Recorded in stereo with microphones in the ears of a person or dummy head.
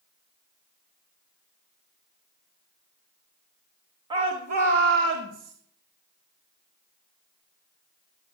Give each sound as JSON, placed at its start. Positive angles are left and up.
{"t": 4.1, "sound": "a shout", "side_deg": -30, "distance_m": 0.9}